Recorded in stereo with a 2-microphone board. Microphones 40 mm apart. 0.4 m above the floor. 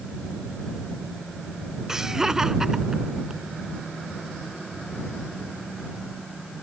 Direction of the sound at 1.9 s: 15° right (ahead or behind).